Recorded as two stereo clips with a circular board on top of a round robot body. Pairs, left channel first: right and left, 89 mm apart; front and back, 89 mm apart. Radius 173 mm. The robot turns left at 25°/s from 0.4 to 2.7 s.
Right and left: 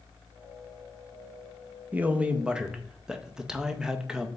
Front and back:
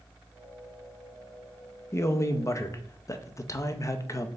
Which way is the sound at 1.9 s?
30° left.